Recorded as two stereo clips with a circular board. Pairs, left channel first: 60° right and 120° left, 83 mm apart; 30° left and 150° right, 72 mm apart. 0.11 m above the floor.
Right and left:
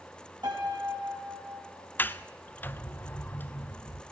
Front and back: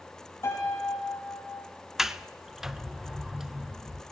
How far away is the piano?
About 8 m.